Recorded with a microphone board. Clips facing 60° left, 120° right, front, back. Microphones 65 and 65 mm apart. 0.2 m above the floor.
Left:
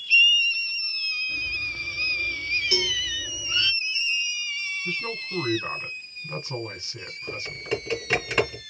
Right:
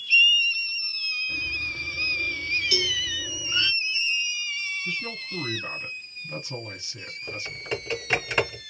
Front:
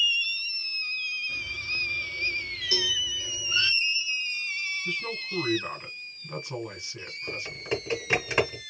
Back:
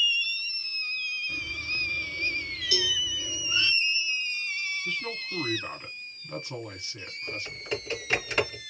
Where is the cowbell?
30° left, 1.1 m.